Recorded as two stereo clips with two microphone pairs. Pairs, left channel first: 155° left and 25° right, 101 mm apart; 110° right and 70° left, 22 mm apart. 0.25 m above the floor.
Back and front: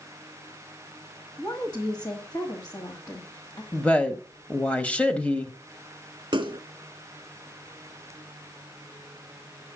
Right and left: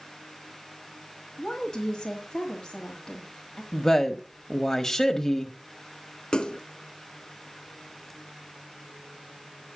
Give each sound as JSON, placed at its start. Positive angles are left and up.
{"t": 1.4, "sound": "a woman speaking", "azimuth_deg": 180, "distance_m": 1.8}
{"t": 3.7, "sound": "a woman speaking", "azimuth_deg": -150, "distance_m": 1.0}
{"t": 6.3, "sound": "a splash", "azimuth_deg": -60, "distance_m": 0.6}